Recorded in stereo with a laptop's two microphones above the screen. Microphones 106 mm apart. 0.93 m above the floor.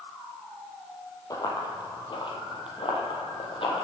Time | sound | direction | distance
1.3 | running footsteps | 40° left (ahead or behind) | 1.5 m